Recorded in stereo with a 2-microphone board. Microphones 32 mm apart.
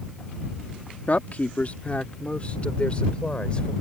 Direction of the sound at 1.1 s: 55° left (ahead or behind).